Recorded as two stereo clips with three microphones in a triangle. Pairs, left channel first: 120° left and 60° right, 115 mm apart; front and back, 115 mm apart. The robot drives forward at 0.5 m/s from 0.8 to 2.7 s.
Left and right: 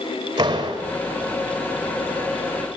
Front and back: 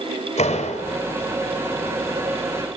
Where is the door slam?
5° right, 5 m.